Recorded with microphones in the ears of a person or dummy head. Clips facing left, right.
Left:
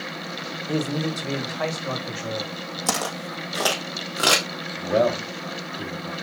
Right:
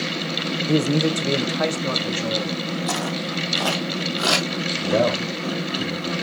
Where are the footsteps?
50° left (ahead or behind), 3 m; by 4.5 s 35° left (ahead or behind), 3 m.